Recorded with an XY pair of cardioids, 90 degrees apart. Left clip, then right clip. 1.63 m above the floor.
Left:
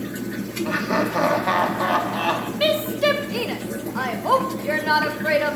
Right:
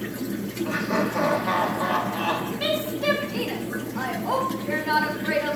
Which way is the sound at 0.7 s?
40° left.